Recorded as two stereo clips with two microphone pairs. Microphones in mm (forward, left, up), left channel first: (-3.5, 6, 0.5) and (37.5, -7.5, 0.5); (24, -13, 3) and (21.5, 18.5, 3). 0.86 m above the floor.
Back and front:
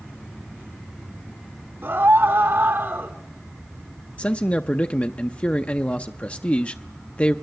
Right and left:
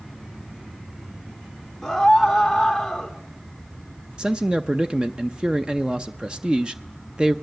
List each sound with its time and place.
1.8 s a scream: 5° left, 3 m
4.2 s a man speaking: 130° left, 0.6 m